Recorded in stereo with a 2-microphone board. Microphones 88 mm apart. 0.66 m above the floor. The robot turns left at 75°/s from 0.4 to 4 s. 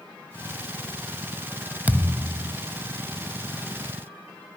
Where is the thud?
25° right; by 2.6 s 75° right.